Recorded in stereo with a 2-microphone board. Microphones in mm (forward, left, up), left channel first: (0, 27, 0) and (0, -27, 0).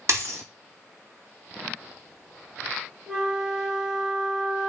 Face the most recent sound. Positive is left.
turn(degrees=-5)  # may be behind; listen again after turning